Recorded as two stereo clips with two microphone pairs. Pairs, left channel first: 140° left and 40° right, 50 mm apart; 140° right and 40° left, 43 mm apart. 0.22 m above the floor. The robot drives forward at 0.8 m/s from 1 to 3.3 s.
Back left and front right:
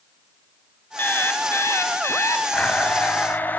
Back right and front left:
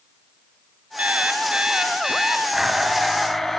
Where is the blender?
110° left, 1.6 m; by 3.6 s 140° left, 1.8 m.